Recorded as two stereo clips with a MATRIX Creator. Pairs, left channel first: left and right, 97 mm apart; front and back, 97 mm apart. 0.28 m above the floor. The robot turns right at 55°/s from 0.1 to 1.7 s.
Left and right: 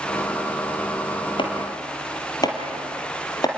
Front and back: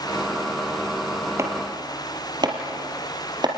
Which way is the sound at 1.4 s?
120° left.